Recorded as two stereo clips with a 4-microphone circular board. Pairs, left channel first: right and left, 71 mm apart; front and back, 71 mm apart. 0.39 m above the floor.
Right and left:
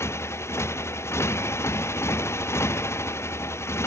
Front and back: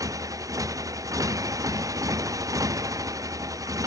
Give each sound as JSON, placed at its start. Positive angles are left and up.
{"t": 0.0, "sound": "a motorcycle", "azimuth_deg": -140}